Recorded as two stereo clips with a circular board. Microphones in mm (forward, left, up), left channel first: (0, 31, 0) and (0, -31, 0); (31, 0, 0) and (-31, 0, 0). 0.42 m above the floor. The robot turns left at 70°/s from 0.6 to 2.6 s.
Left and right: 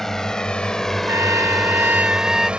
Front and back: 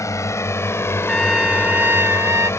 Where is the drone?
10° left; by 2.6 s 25° right.